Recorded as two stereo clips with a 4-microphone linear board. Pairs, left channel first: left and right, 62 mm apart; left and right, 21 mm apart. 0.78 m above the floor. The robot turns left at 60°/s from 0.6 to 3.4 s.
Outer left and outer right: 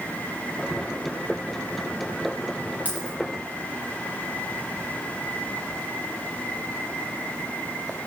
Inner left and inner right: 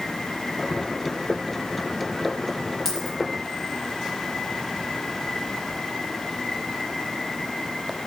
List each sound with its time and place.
2.9 s a dropped coin: 25° left (ahead or behind), 7 m; by 3.1 s 10° left (ahead or behind), 7 m